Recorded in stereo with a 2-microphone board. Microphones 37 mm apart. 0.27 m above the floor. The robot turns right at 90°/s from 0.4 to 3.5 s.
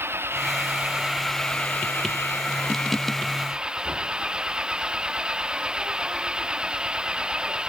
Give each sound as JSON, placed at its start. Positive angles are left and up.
{"t": 0.0, "sound": "an engine running", "azimuth_deg": -80}